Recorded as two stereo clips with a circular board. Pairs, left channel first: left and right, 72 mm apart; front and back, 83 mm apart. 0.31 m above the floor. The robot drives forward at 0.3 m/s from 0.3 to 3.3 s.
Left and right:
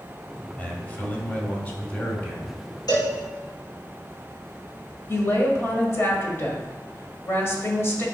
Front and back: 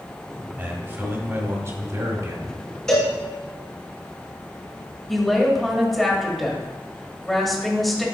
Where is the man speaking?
135° left, 1.5 m; by 2.6 s 155° left, 1.8 m.